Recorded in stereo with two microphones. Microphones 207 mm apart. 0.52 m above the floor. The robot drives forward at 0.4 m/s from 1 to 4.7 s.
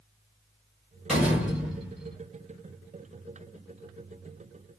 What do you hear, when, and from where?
1.1 s a door slam: 5° right (ahead or behind), 1.6 m